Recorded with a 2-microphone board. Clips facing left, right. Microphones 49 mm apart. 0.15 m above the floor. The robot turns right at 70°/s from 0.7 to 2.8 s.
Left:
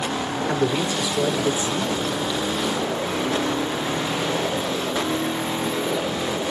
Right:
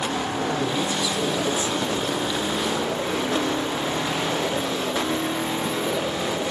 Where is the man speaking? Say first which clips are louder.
Left 5 dB; 60° left, 3.5 m; by 1.9 s 145° left, 3.5 m.